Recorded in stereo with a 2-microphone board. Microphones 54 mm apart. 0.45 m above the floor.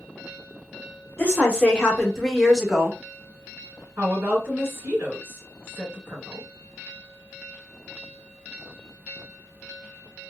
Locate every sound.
1.2 s a woman speaking: 30° left (ahead or behind), 1.1 m; by 3.0 s 10° right (ahead or behind), 1.2 m
4.0 s a woman speaking: 45° right (ahead or behind), 1.8 m